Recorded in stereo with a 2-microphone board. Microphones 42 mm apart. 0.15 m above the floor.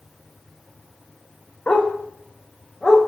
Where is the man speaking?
I don't hear a man speaking.